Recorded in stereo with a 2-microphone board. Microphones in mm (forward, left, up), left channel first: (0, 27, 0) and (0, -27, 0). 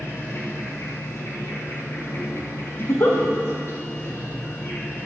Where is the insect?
60° left (ahead or behind), 3.5 m.